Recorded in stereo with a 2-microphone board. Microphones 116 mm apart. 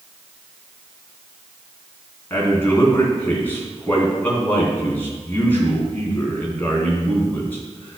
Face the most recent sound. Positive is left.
turn(degrees=20)  # may be behind; listen again after turning